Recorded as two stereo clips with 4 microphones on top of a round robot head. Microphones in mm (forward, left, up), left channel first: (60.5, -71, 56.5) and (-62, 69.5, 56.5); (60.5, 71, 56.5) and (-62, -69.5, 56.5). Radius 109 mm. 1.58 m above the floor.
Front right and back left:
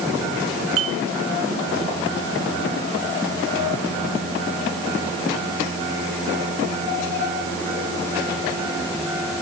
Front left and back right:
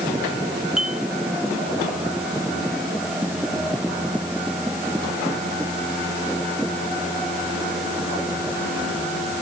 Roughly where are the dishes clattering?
Behind left.